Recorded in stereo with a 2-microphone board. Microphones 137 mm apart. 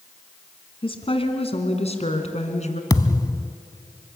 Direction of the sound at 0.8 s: 40° left (ahead or behind).